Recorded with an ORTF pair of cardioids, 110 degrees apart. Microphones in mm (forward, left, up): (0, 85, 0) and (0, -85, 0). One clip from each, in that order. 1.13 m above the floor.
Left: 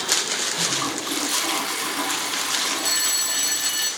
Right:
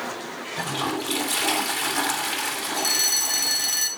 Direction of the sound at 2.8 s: 65° right.